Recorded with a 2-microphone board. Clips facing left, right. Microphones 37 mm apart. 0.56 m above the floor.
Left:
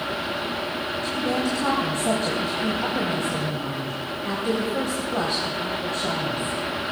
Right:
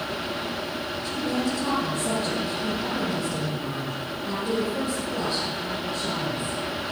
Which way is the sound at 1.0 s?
70° left (ahead or behind).